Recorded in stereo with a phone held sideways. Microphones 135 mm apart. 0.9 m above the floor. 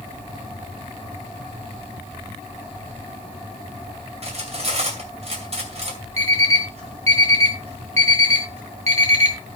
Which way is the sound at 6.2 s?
50° right (ahead or behind).